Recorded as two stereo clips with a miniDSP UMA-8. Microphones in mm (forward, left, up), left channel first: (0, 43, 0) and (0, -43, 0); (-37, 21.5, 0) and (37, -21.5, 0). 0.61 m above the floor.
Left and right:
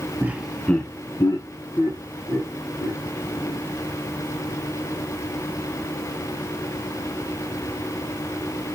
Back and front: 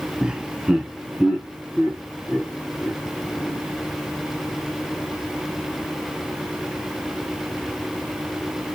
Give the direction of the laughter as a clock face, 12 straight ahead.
3 o'clock.